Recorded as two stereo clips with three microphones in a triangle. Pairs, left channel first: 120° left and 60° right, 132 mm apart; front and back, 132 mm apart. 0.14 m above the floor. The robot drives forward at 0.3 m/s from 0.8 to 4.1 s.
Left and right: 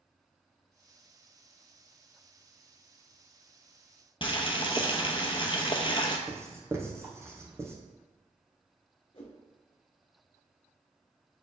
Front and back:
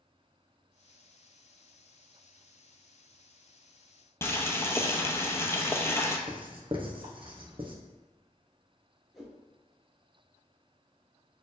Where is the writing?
130° right, 1.0 m.